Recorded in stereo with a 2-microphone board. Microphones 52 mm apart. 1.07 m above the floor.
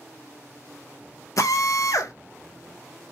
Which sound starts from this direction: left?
A drill, at 1.4 s.